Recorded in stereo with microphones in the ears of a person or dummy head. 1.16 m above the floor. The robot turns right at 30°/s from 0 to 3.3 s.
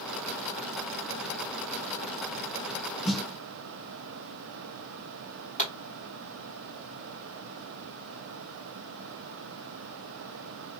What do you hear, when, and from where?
3.0 s a snare drum: 5° left (ahead or behind), 0.6 m
5.6 s a pop: 30° left (ahead or behind), 1.7 m